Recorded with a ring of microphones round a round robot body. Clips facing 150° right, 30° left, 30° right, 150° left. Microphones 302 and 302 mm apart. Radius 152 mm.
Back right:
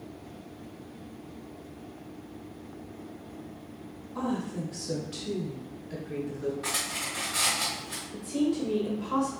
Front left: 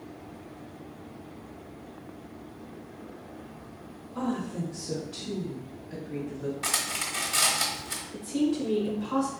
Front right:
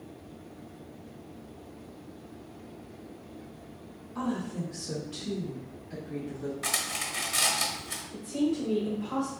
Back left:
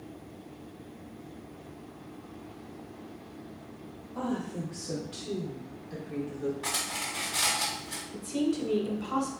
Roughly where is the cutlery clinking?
Ahead.